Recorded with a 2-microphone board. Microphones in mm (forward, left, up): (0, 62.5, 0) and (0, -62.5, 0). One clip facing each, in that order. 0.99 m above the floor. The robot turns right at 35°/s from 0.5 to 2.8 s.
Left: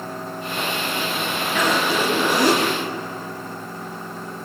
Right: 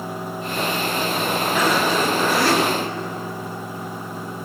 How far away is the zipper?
About 7 m.